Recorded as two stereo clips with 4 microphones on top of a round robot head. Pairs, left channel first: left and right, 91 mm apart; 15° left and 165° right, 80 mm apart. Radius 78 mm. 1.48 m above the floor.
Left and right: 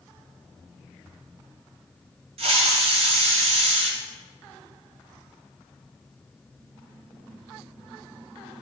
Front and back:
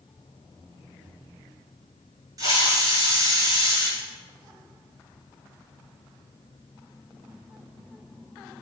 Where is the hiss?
115° right, 1.8 m.